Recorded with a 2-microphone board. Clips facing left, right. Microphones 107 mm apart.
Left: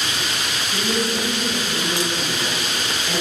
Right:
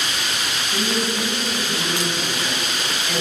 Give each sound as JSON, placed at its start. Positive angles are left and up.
{"t": 0.7, "sound": "a woman speaking", "side_deg": 15, "distance_m": 2.5}